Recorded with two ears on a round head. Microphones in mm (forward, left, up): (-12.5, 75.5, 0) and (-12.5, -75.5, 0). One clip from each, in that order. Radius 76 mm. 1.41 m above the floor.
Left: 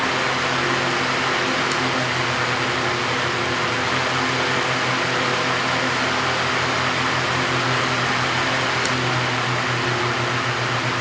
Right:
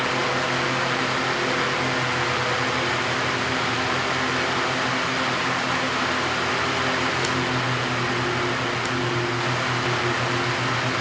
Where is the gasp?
No gasp in this recording.